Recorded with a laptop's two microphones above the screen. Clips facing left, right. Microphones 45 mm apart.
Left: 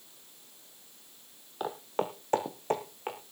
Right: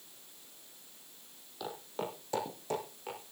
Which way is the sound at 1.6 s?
40° left (ahead or behind).